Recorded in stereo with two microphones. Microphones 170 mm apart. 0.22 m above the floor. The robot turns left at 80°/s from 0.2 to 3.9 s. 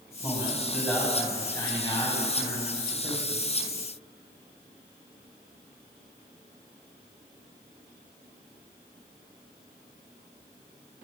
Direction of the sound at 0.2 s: 15° right (ahead or behind).